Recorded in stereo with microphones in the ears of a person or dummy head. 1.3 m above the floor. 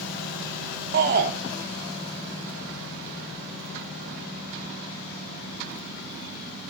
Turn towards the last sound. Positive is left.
turn(degrees=-45)  # may be behind; listen again after turning